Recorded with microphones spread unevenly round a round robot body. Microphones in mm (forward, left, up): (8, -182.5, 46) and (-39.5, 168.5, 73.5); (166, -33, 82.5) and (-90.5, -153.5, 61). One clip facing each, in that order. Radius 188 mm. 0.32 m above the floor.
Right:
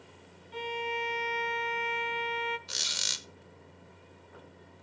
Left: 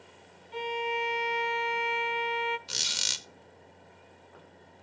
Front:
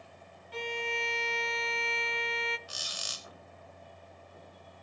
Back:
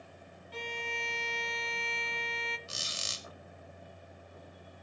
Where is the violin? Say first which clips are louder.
Left 3 dB, front 5 dB; 45° left, 0.6 m.